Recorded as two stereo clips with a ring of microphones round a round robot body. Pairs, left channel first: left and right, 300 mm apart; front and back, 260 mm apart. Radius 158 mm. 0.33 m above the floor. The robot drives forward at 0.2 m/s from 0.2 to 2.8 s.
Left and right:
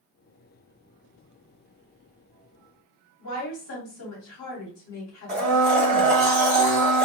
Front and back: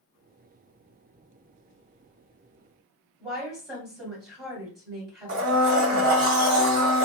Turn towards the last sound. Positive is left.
turn(degrees=175)